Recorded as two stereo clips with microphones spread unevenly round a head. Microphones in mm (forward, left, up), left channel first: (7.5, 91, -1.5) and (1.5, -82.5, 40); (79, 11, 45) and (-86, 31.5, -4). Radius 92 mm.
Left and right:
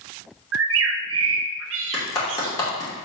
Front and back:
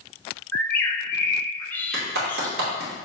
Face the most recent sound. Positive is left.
turn(degrees=160)